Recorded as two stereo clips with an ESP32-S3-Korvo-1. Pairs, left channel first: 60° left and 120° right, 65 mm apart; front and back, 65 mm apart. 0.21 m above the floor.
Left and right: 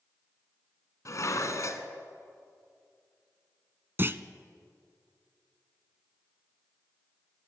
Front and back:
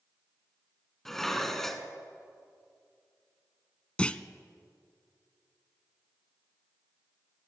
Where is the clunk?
75° right, 0.6 m.